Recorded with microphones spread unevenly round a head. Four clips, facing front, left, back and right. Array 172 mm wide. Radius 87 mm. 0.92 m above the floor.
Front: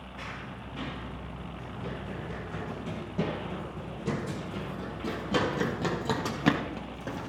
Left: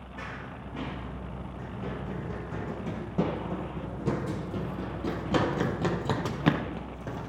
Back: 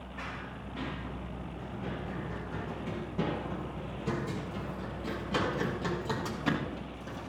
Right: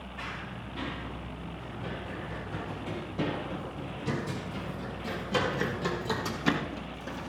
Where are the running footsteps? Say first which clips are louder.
Left 1 dB, even; 80° left, 4 m; by 7.3 s 20° left, 1.4 m.